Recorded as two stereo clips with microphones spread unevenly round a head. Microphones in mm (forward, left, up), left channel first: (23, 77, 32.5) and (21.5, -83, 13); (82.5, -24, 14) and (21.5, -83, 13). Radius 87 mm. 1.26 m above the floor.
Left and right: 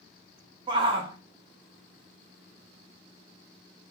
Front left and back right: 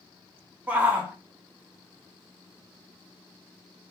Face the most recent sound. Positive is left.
turn(degrees=-75)